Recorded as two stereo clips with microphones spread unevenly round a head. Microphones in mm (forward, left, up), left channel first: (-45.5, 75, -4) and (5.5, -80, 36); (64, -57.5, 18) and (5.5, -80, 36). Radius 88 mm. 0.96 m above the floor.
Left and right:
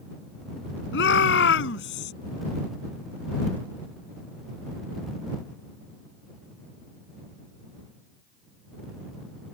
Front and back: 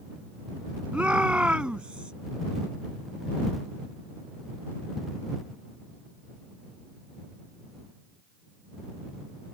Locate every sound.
0.9 s a shout: 120° left